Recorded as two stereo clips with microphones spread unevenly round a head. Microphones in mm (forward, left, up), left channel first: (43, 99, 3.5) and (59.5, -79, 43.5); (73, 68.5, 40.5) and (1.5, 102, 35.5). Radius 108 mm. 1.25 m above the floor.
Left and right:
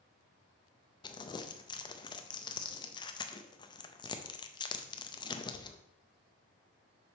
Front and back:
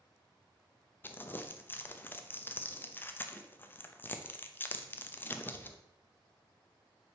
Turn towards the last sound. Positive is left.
turn(degrees=25)